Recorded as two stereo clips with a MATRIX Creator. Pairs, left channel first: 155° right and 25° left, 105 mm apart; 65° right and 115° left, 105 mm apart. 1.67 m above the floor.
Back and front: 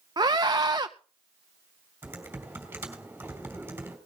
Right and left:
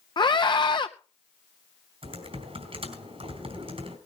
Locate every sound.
0.2 s a scream: 25° right, 0.6 m
2.0 s typing on a keyboard: 95° left, 3.5 m